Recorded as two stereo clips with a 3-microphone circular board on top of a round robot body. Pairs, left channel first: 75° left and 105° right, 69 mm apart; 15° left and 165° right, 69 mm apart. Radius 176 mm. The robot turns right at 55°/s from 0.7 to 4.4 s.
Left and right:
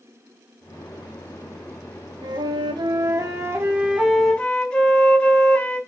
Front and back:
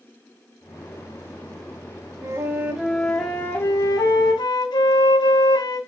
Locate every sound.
2.2 s a flute: 120° right, 1.5 m; by 5.8 s straight ahead, 1.5 m